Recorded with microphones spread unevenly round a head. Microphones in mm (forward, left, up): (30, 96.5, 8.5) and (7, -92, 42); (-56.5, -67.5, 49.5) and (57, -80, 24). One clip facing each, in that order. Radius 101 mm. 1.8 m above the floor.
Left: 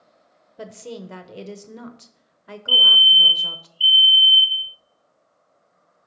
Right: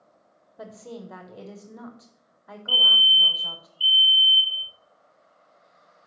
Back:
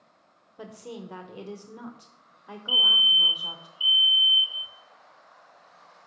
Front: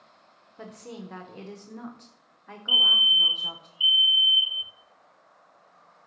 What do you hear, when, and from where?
0.6 s a woman speaking: 130° left, 0.8 m
2.7 s a fire alarm: 20° left, 0.7 m